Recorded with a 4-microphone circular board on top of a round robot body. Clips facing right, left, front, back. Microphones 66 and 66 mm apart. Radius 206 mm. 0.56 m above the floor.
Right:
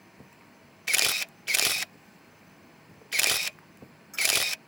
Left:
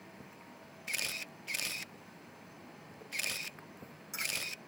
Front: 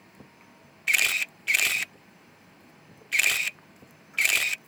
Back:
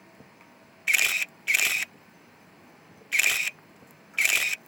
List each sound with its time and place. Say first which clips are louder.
0.9 s a camera shutter: right 11 dB, even; 90° right